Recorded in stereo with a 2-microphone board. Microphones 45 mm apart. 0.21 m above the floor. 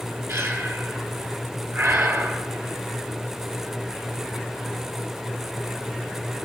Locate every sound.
0.3 s breathing: 75° right (ahead or behind), 1.3 m